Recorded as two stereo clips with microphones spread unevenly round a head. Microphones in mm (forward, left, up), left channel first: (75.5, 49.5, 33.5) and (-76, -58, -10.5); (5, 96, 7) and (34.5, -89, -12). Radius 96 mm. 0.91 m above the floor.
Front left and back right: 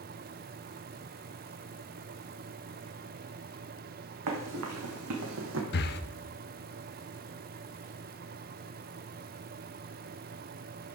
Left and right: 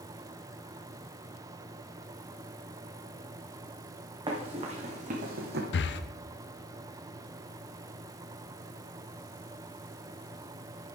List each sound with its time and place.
4.3 s running footsteps: 150° right, 2.5 m; by 5.6 s 120° right, 1.9 m
5.7 s breathing: 75° left, 0.6 m